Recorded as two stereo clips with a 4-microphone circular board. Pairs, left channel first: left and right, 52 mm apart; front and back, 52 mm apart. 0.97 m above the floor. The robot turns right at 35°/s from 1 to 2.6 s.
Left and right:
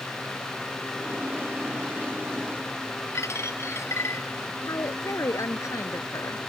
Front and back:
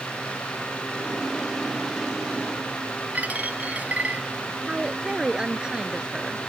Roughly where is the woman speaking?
Left.